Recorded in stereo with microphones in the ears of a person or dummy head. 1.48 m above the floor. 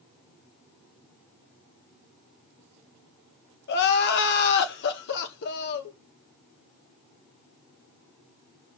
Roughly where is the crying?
Left.